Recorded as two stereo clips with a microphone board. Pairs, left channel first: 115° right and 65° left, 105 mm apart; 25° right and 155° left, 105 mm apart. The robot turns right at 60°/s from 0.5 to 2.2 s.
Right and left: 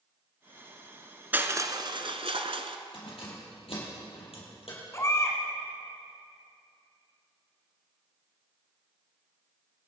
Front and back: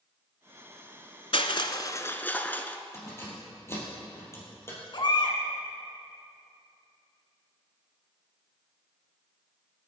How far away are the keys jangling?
About 4.5 m.